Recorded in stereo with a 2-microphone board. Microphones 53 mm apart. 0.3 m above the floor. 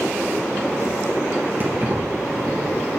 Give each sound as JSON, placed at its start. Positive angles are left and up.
{"t": 1.6, "sound": "keys jangling", "side_deg": -40, "distance_m": 4.5}